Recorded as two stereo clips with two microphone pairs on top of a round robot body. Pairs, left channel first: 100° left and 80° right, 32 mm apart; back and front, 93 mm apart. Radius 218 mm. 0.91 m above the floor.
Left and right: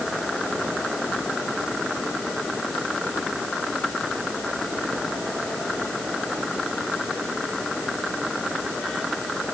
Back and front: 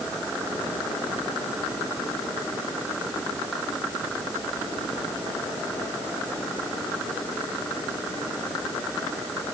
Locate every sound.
Only background noise.